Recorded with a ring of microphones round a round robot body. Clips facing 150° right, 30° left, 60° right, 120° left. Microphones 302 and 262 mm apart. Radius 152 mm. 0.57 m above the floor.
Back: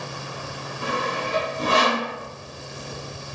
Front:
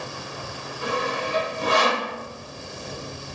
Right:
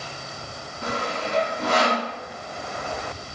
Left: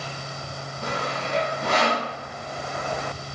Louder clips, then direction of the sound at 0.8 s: Front 1 dB, right 1 dB; 100° right.